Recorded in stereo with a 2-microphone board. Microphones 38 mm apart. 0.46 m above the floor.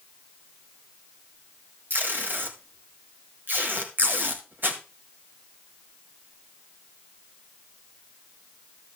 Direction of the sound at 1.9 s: 55° right (ahead or behind).